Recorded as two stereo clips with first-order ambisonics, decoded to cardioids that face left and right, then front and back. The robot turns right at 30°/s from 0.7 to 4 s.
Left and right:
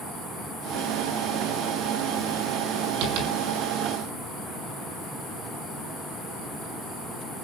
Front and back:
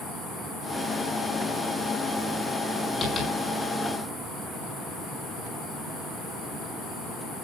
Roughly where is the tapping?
Right.